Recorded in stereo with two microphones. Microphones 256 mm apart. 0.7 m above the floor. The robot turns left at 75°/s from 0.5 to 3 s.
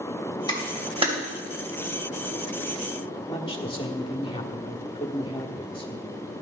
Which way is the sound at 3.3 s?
20° left (ahead or behind).